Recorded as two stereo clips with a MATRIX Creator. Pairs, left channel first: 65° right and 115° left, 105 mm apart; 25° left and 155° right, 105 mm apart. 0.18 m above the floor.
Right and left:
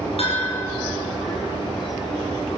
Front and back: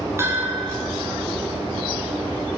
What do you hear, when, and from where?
0.2 s a bell: 90° right, 9.5 m